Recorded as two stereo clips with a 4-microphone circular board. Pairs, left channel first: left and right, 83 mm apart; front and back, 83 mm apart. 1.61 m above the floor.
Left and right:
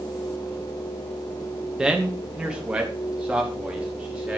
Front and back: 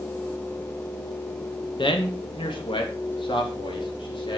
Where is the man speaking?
10° right, 2.5 m; by 4.4 s 15° right, 4.5 m.